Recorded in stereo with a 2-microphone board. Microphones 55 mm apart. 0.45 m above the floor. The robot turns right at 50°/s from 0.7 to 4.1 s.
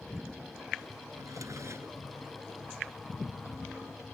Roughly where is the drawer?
Right.